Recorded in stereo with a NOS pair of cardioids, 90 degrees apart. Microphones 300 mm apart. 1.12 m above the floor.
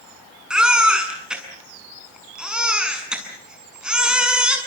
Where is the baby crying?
5° right, 7 m.